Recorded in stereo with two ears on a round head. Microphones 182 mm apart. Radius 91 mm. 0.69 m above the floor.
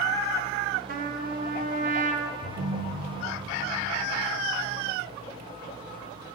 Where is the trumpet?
40° right (ahead or behind), 0.7 m.